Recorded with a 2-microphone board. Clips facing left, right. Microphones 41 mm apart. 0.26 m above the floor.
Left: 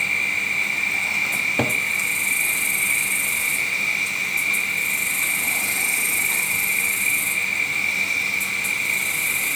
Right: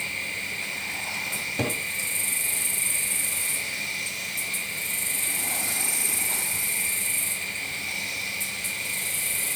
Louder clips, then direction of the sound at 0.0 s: Left 9 dB; 60° left (ahead or behind).